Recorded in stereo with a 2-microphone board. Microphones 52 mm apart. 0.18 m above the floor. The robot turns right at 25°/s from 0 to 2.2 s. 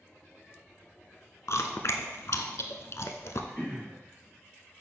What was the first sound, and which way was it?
Chewing, 65° left (ahead or behind).